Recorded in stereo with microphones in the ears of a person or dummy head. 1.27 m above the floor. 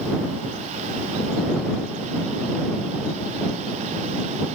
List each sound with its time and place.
Only background noise.